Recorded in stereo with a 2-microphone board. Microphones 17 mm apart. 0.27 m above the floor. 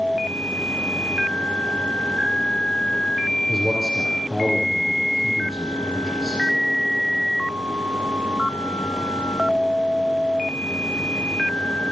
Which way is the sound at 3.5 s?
10° right (ahead or behind).